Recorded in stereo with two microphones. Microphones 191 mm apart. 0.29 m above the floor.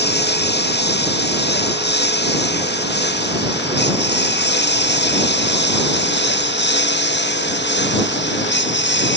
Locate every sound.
0.0 s a lawn mower: 60° left (ahead or behind); by 9.2 s 65° left (ahead or behind)